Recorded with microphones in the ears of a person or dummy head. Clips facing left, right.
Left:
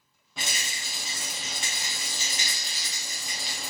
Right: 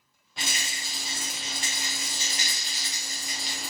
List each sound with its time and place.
0.4 s a rattle: 80° left, 1.1 m